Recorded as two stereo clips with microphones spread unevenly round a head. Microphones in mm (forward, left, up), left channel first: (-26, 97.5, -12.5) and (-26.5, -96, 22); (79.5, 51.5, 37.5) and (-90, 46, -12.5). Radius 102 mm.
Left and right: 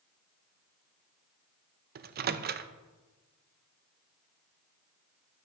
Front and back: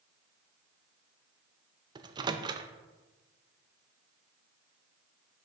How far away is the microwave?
About 0.5 m.